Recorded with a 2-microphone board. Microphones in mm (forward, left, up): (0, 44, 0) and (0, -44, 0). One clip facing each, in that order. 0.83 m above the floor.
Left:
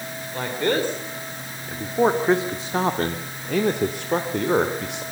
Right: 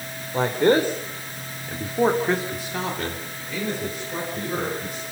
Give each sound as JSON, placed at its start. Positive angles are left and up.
{"t": 0.3, "sound": "a man speaking", "side_deg": -20, "distance_m": 2.5}